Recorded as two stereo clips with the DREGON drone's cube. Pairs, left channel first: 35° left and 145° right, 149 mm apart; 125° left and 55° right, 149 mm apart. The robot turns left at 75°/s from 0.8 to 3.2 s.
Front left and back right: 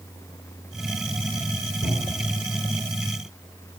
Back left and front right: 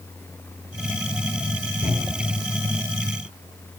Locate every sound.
1.8 s a cupboard door: 95° left, 6.5 m; by 2.4 s 55° left, 6.5 m